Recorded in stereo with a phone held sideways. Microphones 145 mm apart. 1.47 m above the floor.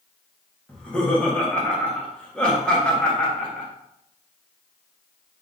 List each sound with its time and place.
0.7 s laughter: 5° left (ahead or behind), 1.4 m